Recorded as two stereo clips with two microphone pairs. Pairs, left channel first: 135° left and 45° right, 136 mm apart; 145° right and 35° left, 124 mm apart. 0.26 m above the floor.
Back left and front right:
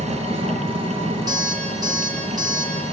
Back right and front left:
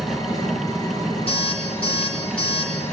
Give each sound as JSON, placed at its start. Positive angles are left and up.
{"t": 0.0, "sound": "an engine running", "azimuth_deg": -90, "distance_m": 4.0}
{"t": 1.3, "sound": "an alarm clock", "azimuth_deg": -105, "distance_m": 6.0}